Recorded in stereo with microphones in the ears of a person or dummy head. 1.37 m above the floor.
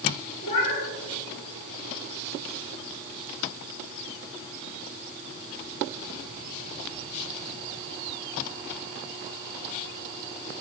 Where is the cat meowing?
40° left (ahead or behind), 3.5 m.